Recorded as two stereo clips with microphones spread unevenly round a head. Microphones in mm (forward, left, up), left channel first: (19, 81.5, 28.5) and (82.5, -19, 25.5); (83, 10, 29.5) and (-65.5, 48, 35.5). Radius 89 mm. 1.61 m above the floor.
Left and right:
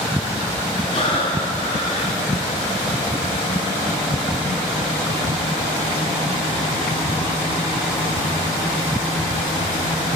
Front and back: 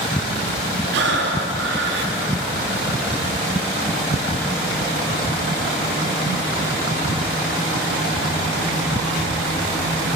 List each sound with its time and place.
0.9 s breathing: straight behind, 0.8 m